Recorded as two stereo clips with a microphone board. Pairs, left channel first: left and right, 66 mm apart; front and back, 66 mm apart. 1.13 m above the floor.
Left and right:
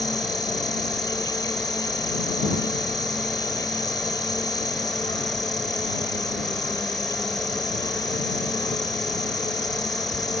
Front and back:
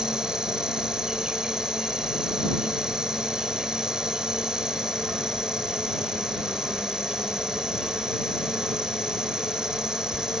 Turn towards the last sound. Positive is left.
turn(degrees=100)